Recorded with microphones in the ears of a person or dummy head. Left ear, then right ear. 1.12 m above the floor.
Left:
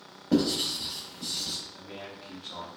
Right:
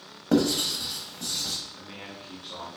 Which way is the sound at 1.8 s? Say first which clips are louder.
Right 1 dB; 10° left (ahead or behind).